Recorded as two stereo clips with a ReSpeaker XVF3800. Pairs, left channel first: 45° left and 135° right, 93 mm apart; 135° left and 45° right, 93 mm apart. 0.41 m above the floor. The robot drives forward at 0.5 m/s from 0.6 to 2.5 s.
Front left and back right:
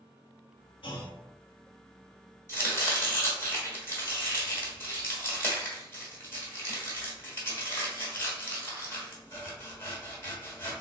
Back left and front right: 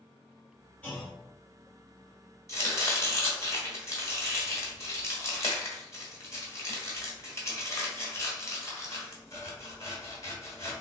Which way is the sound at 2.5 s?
95° left.